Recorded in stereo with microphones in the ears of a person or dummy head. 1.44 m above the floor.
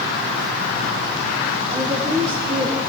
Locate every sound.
1.7 s a woman speaking: 25° right (ahead or behind), 3 m